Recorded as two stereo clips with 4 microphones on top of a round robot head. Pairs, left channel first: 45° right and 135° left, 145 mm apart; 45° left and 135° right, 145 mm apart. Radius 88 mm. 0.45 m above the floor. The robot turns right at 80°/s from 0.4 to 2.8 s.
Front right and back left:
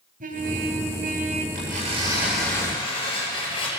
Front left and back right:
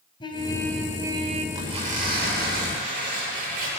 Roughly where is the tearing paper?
Behind left.